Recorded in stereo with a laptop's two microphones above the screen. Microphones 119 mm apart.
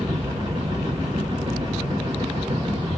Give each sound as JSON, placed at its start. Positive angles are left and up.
{"t": 0.0, "sound": "a machine running", "side_deg": -30, "distance_m": 1.9}